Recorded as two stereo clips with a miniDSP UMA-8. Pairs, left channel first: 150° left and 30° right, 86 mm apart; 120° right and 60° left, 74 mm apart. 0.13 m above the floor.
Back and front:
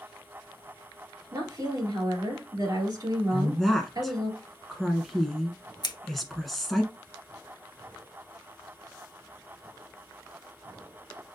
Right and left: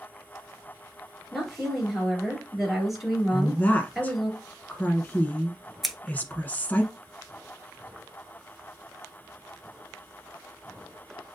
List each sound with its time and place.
1.3 s a woman speaking: 25° right, 2.5 m
3.3 s a woman speaking: 125° right, 1.2 m
5.8 s scissors: 150° left, 0.8 m